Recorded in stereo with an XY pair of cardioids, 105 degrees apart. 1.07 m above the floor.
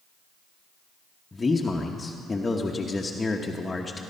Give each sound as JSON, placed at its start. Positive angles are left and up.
{"t": 1.3, "sound": "a man speaking", "azimuth_deg": 20, "distance_m": 1.0}